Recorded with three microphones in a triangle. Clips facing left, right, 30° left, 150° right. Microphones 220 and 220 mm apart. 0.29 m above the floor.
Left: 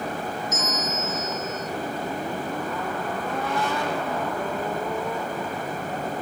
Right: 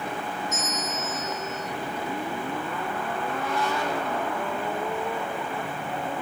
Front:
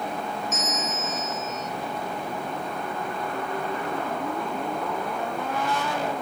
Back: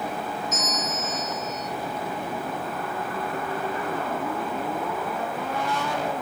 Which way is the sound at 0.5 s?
160° left.